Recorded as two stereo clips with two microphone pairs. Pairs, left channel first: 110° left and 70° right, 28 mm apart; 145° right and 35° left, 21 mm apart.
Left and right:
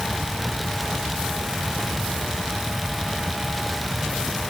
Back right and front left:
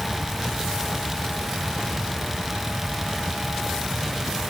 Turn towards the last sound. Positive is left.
No sound to turn to.